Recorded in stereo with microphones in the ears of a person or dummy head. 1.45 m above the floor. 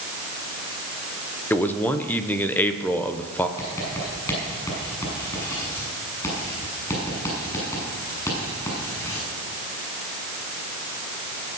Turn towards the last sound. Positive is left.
turn(degrees=15)  # may be behind; listen again after turning